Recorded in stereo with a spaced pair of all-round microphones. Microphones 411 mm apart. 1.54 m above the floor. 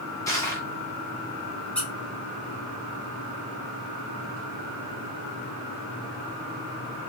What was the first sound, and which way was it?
Crushing, 10° left (ahead or behind).